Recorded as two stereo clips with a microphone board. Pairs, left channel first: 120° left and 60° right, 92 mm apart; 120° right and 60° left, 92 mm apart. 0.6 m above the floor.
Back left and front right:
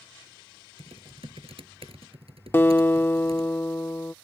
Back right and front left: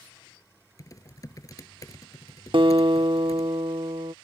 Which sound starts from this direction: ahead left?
A guitar, at 2.5 s.